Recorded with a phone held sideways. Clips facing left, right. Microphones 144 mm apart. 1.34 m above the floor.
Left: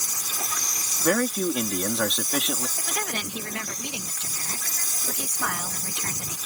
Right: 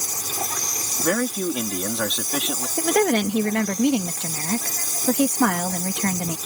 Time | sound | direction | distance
0.0 | an insect | 45° right (ahead or behind) | ?
1.0 | a man speaking | 5° right (ahead or behind) | ?
2.8 | a woman speaking | 65° right (ahead or behind) | ?